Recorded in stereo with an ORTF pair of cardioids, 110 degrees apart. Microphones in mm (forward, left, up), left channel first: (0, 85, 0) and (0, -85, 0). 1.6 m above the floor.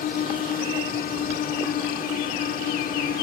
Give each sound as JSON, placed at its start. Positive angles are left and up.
{"t": 0.0, "sound": "a drone", "azimuth_deg": 60}